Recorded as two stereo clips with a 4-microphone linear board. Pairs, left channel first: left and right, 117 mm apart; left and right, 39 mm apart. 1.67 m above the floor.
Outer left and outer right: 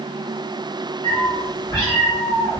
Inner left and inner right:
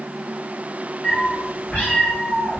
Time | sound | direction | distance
1.0 | a cat meowing | 30° left (ahead or behind) | 1.1 m